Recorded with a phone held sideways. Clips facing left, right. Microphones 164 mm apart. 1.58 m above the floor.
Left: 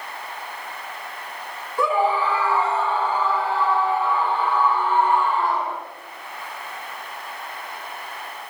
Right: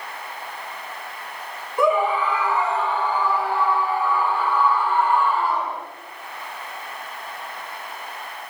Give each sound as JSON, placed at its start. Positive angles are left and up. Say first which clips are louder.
{"t": 1.8, "sound": "a scream", "louder": "right 1 dB", "side_deg": -20, "distance_m": 2.0}